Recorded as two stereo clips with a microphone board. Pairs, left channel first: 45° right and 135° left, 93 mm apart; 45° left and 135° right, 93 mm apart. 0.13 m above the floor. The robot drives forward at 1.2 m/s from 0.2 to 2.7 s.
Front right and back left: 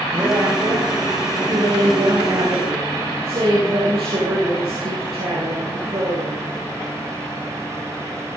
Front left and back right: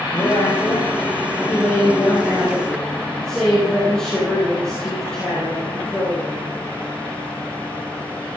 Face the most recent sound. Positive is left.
turn(degrees=130)